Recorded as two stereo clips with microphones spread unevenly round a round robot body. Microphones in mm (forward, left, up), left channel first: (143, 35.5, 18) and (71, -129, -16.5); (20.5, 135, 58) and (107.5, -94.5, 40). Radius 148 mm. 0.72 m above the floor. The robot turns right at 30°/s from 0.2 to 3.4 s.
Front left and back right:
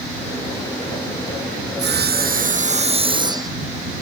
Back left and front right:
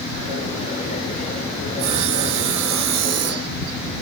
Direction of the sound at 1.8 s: 90° right.